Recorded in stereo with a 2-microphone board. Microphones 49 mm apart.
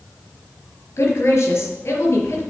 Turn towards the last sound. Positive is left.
turn(degrees=70)  # may be behind; listen again after turning